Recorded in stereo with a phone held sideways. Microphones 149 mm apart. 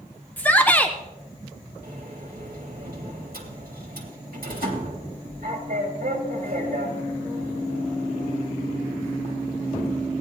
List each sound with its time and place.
0.4 s a shout: 10° left (ahead or behind), 0.6 m
1.8 s a sliding door: 70° right (ahead or behind), 2.5 m